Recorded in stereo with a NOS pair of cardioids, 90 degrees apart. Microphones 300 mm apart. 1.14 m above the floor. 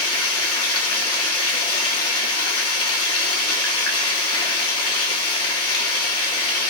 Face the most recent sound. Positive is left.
turn(degrees=50)